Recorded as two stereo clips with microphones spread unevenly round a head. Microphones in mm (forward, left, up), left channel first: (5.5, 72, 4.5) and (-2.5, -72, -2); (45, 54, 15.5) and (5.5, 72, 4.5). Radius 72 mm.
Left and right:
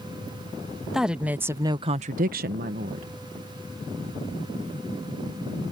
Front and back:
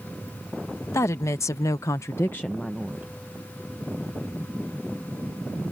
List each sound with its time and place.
0.9 s a woman speaking: 5° right; by 3.1 s 135° right